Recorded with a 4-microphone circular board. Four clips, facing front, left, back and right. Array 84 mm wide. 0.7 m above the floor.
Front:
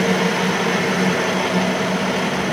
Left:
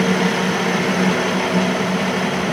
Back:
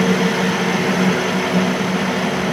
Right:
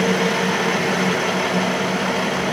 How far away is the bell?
I don't hear a bell.